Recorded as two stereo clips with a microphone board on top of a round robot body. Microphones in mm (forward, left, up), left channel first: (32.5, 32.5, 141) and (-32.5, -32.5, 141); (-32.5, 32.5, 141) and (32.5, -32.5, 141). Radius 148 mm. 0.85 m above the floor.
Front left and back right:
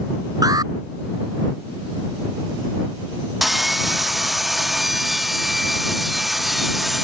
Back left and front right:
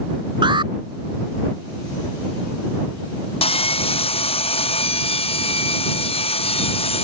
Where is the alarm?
85° right.